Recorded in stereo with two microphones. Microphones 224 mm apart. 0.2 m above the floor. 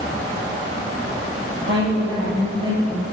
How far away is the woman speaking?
About 6 m.